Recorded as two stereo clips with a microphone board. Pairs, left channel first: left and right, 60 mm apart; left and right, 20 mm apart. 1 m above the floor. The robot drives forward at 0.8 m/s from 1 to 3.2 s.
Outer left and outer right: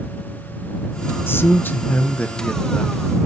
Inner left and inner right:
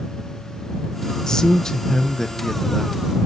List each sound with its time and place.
1.3 s a man speaking: 40° left (ahead or behind), 0.9 m; by 3.0 s 20° left (ahead or behind), 1.8 m